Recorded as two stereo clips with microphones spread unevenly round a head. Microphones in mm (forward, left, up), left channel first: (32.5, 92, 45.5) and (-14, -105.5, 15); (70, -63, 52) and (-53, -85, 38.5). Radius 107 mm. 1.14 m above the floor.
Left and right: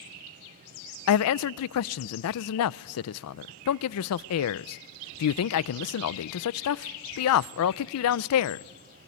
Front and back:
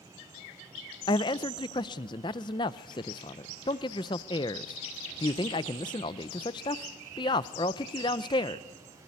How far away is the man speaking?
About 0.5 m.